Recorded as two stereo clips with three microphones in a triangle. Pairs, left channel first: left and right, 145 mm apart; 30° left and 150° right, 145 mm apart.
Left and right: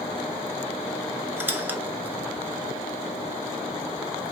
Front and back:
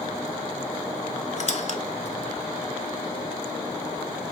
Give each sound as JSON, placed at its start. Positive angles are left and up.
{"t": 1.4, "sound": "a squeak", "azimuth_deg": -15, "distance_m": 0.6}